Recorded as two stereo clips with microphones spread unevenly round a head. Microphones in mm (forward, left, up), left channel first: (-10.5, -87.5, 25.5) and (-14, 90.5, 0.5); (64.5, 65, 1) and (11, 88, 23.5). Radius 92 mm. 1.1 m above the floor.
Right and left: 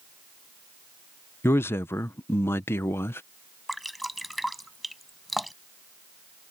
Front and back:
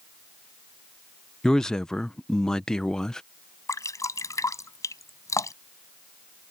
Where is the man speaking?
10° right.